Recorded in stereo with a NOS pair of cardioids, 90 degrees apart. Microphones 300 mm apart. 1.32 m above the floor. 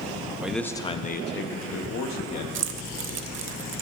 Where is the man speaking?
5° right, 0.8 m; by 2.5 s 65° left, 1.2 m.